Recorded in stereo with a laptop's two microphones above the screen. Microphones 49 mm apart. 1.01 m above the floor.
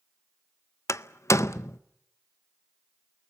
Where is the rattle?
I don't hear a rattle.